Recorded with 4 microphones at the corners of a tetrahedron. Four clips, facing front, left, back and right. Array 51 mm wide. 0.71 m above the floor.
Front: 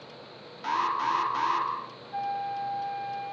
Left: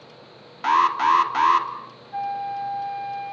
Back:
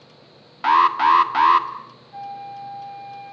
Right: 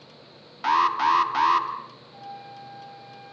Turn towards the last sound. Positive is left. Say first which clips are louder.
# left 15 dB, front 2 dB
turn(degrees=70)